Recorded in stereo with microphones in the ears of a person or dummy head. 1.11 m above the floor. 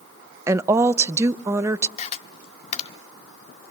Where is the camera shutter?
30° left (ahead or behind), 1.0 m.